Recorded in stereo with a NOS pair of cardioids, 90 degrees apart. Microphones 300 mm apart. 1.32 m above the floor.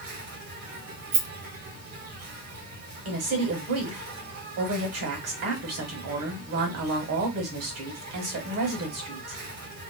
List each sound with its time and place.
0.0 s an insect: 65° right, 1.5 m
1.1 s a rattle: 40° right, 0.7 m
3.0 s a woman speaking: 60° right, 1.4 m